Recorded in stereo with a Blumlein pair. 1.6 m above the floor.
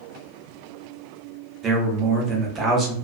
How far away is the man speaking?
About 0.9 m.